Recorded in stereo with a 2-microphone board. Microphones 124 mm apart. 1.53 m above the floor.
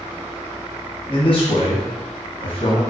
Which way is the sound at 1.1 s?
45° left (ahead or behind).